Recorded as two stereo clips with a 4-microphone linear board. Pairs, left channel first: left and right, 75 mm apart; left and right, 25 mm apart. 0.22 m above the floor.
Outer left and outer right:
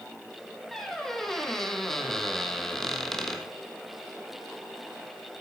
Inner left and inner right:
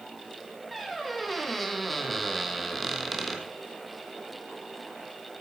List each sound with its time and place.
0.7 s a squeak: 5° left (ahead or behind), 1.3 m